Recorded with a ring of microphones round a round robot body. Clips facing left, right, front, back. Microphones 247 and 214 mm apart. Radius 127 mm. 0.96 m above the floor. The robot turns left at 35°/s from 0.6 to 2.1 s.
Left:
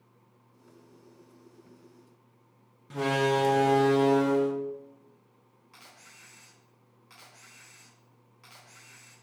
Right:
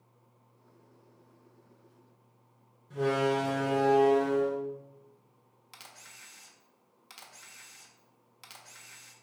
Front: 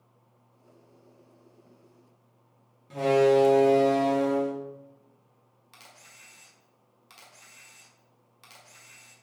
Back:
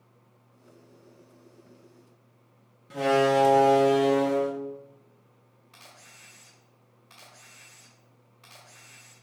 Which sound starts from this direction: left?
A door slam, at 2.9 s.